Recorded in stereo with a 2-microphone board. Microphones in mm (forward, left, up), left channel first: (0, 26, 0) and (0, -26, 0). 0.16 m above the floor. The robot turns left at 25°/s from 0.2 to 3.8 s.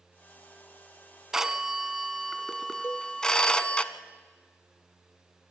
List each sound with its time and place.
1.3 s a phone ringing: 10° right (ahead or behind), 0.7 m; by 3.8 s 20° left (ahead or behind), 0.7 m
2.8 s a cowbell: 45° left (ahead or behind), 1.0 m; by 3.1 s 40° left (ahead or behind), 1.0 m